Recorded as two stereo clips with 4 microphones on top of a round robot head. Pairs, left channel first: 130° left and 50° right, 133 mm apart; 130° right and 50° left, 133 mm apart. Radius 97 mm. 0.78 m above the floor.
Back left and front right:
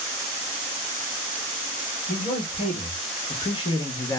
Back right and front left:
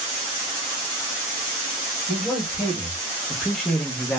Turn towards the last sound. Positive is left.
turn(degrees=155)